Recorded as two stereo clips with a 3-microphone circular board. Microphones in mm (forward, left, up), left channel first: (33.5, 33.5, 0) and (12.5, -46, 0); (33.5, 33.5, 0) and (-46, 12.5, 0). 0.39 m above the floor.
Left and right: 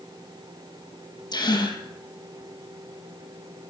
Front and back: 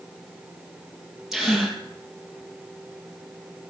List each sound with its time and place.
1.3 s a gasp: 110° left, 2.5 m